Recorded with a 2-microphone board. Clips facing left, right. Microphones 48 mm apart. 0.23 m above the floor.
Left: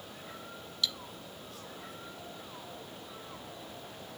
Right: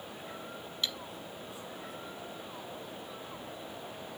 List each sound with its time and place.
0.8 s cutlery clinking: 30° right (ahead or behind), 1.0 m